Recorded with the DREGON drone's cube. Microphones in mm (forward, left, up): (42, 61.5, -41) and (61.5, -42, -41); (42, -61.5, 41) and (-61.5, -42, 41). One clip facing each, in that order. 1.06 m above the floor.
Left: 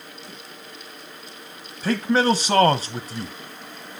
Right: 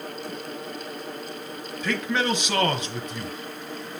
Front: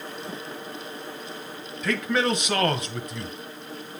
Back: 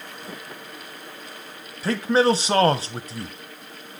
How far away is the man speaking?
About 0.9 m.